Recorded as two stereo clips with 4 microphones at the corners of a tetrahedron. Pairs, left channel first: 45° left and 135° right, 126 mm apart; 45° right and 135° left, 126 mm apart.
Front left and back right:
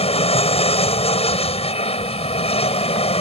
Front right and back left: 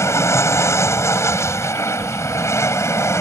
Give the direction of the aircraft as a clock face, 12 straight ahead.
11 o'clock.